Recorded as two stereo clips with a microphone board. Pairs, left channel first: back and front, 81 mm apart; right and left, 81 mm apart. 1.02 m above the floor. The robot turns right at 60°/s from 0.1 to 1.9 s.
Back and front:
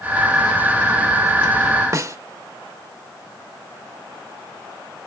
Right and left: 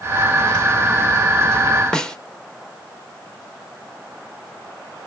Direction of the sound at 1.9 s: 10° right.